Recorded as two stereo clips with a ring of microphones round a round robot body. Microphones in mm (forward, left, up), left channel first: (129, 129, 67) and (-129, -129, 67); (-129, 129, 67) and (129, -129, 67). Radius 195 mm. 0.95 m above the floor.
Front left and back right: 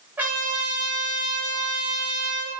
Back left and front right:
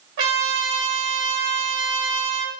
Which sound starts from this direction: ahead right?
A trumpet, at 0.2 s.